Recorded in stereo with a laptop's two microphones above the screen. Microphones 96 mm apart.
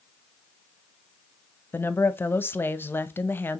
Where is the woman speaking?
25° left (ahead or behind), 0.6 m.